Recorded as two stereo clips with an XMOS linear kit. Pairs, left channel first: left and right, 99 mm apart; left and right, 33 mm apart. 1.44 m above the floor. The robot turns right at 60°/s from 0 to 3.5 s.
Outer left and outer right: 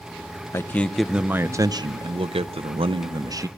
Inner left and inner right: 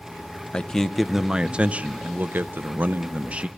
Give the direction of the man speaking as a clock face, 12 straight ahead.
7 o'clock.